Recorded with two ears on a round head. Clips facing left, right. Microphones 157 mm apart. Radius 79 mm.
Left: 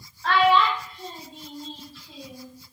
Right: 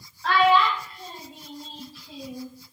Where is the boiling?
No boiling in this recording.